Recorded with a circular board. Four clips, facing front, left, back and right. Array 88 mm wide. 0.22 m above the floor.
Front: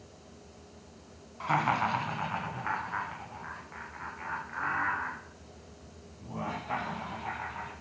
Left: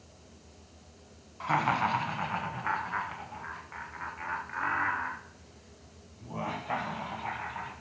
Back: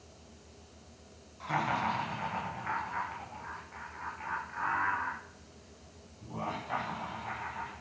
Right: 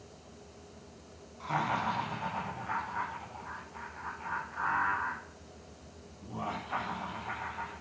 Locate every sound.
1.4 s laughter: 40° left, 2 m; by 7.7 s 75° left, 6.5 m